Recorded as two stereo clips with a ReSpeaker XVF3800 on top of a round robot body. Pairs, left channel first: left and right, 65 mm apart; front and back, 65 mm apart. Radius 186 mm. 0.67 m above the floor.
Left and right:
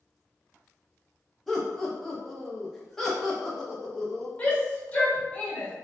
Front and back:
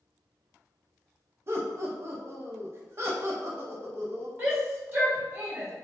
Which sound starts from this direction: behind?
Laughter, at 1.5 s.